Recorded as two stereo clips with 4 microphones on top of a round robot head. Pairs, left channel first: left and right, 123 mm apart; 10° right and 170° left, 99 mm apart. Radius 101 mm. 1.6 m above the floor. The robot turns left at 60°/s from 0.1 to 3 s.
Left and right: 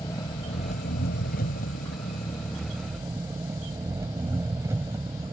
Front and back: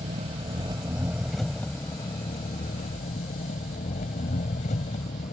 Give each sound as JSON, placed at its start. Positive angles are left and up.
{"t": 0.0, "sound": "an engine running", "azimuth_deg": 160}